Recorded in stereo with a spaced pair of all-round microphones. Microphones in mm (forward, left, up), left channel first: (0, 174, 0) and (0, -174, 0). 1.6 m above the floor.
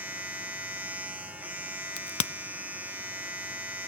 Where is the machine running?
5° right (ahead or behind), 2 m.